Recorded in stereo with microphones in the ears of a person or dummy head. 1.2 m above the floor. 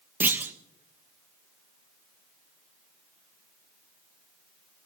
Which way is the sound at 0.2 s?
10° right (ahead or behind).